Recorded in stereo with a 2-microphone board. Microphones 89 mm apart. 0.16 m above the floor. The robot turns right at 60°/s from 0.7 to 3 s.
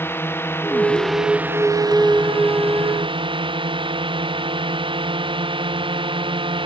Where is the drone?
25° left (ahead or behind); by 6.7 s 65° right (ahead or behind).